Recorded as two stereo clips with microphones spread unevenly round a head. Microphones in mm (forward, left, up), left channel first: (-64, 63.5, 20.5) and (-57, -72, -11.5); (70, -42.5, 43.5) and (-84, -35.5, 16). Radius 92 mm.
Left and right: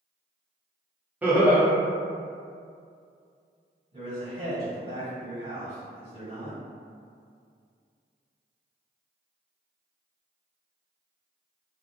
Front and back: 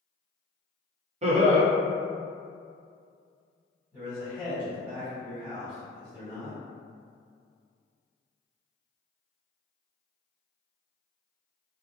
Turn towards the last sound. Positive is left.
turn(degrees=-110)